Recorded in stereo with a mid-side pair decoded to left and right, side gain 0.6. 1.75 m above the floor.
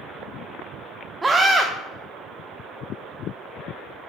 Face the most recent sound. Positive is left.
turn(degrees=-20)